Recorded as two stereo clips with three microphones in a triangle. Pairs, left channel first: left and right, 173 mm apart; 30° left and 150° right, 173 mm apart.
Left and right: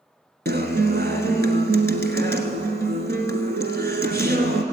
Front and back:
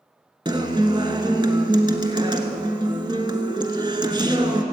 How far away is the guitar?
About 1.3 m.